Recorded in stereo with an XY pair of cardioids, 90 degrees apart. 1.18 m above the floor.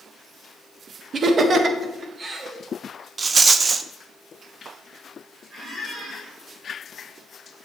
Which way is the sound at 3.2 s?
40° right.